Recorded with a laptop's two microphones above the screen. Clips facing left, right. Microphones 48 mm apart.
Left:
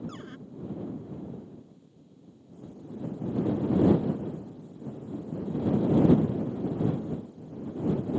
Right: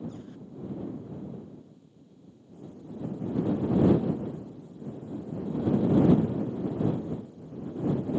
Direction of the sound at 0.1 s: 75° left (ahead or behind).